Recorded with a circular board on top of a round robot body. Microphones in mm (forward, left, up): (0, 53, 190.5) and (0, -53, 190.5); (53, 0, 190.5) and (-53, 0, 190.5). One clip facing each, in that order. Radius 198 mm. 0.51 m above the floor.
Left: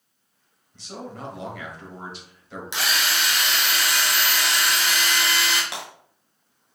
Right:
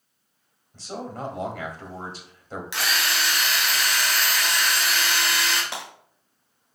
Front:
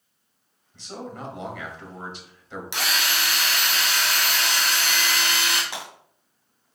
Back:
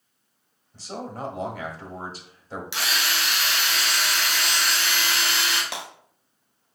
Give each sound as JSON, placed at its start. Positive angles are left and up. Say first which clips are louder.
{"t": 0.7, "sound": "a man speaking", "louder": "right 3 dB, back 2 dB", "azimuth_deg": -135, "distance_m": 1.4}
{"t": 2.7, "sound": "a drill", "louder": "left 1 dB, front 1 dB", "azimuth_deg": 30, "distance_m": 1.9}
{"t": 5.7, "sound": "breaking glass", "louder": "even, back 1 dB", "azimuth_deg": 175, "distance_m": 1.6}